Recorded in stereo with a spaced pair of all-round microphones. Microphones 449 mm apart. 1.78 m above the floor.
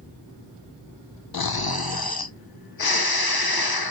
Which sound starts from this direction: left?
Snoring, at 1.3 s.